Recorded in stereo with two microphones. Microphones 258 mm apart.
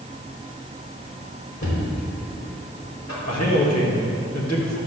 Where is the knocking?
80° left, 3 m.